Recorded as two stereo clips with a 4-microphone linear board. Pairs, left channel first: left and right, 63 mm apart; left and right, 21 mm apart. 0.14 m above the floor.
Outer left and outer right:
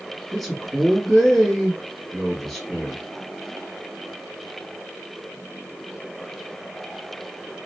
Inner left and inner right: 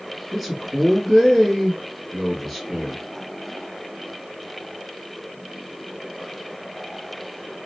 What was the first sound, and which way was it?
A man speaking, centre (ahead or behind).